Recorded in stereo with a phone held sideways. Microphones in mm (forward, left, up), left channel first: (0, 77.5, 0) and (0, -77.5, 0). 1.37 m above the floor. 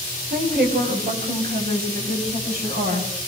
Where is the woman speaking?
85° right, 9 m; by 3.3 s 80° right, 12.5 m.